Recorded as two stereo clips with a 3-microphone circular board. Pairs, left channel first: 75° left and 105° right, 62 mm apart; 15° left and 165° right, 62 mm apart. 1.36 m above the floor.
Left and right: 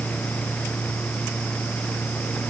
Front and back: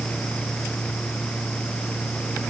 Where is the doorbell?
I don't hear a doorbell.